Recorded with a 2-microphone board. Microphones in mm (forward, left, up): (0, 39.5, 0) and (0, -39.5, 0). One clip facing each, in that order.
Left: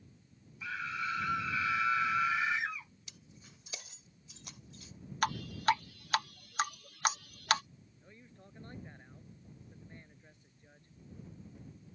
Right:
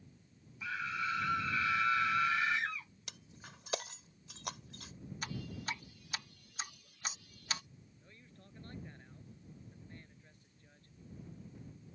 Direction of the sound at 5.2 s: 65° left (ahead or behind).